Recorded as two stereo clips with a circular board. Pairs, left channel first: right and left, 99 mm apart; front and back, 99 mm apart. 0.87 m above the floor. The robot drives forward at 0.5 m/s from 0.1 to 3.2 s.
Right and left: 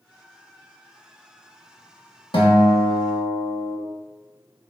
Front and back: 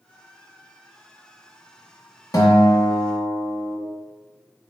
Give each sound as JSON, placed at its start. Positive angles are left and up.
{"t": 2.3, "sound": "a guitar", "azimuth_deg": -55, "distance_m": 1.0}